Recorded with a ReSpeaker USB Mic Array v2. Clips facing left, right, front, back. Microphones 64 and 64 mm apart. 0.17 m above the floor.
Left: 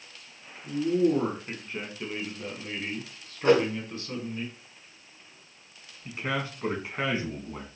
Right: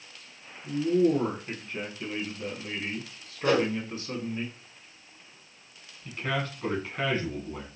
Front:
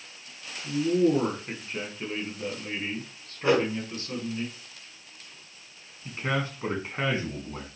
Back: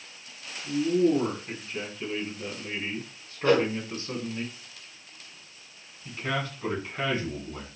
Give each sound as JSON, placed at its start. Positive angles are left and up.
{"t": 0.6, "sound": "a man speaking", "azimuth_deg": 30, "distance_m": 1.7}
{"t": 3.5, "sound": "a whoosh", "azimuth_deg": 65, "distance_m": 0.8}
{"t": 6.0, "sound": "a man speaking", "azimuth_deg": 30, "distance_m": 1.2}